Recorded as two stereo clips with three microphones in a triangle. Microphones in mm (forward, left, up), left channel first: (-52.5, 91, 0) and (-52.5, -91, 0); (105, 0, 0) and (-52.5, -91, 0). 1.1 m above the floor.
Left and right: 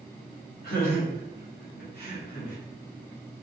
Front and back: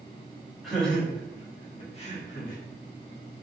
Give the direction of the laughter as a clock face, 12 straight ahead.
8 o'clock.